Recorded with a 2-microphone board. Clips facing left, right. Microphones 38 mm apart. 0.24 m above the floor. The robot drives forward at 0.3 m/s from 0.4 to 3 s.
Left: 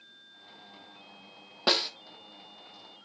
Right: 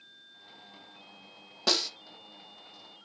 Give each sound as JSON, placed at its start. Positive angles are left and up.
{"t": 1.7, "sound": "a snare drum", "side_deg": 20, "distance_m": 0.7}